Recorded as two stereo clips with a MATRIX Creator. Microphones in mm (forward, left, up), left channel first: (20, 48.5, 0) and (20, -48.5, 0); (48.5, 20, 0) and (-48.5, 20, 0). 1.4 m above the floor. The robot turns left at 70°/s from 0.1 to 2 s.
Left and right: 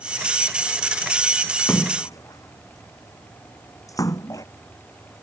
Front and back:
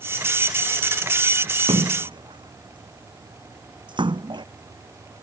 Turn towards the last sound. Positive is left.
turn(degrees=145)